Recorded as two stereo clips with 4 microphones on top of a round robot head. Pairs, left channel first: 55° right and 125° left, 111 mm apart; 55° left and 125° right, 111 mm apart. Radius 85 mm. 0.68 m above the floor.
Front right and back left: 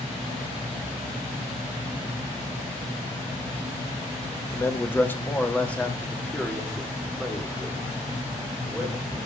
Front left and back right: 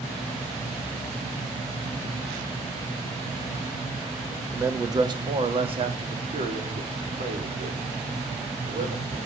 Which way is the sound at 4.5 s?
90° right.